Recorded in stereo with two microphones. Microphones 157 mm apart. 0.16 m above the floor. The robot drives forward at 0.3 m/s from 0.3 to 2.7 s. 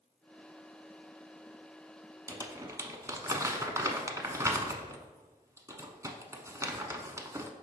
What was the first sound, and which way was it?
Crumpling, 20° right (ahead or behind).